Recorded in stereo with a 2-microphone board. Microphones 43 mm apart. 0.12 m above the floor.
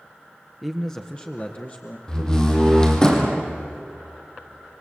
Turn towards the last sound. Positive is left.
turn(degrees=15)  # may be behind; listen again after turning